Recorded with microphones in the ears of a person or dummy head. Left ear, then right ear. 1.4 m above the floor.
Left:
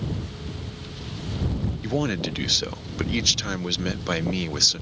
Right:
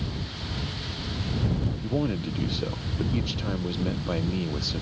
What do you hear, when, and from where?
1.8 s a man speaking: 60° left (ahead or behind)